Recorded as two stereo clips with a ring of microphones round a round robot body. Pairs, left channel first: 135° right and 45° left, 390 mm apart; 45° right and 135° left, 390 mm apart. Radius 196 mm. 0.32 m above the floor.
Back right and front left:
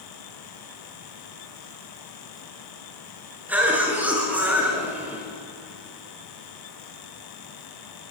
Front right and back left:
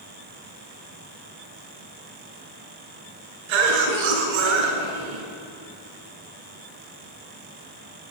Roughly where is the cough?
Behind left.